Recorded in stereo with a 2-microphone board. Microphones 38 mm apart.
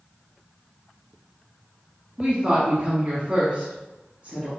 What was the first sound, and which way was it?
A woman speaking, 30° right (ahead or behind).